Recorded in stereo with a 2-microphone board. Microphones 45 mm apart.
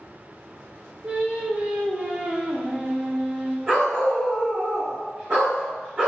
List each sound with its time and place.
1.0 s singing: 30° right (ahead or behind), 0.6 m
3.7 s a dog barking: 20° right (ahead or behind), 1.6 m